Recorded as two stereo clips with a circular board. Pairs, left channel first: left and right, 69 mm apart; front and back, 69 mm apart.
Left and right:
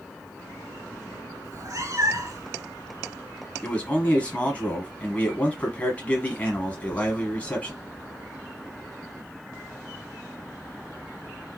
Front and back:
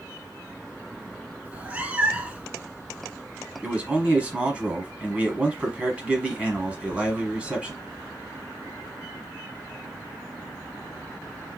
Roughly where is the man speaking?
Behind left.